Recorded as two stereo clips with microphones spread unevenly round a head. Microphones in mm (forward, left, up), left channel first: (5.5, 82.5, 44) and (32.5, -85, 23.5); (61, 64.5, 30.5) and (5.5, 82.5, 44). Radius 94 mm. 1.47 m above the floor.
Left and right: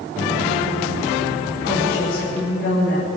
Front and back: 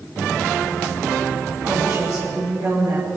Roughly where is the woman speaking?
Behind left.